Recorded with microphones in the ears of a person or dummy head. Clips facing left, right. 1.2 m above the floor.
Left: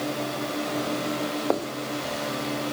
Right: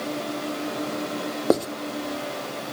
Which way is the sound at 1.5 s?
40° right (ahead or behind).